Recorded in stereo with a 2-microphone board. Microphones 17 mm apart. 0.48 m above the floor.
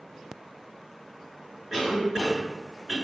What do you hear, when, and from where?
1.7 s a cough: 5° right (ahead or behind), 1.6 m